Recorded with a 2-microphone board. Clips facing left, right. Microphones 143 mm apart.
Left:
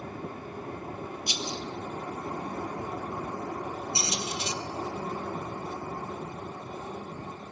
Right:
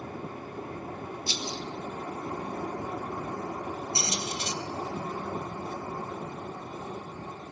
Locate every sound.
1.3 s a rattle: 15° left (ahead or behind), 1.6 m
4.0 s a squeak: 55° right (ahead or behind), 1.6 m